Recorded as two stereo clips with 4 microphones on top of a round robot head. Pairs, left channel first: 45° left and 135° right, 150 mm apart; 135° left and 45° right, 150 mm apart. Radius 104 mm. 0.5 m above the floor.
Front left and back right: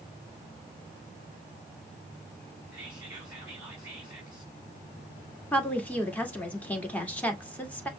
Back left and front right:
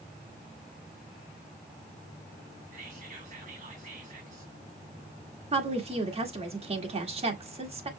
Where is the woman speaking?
30° right, 1.7 m.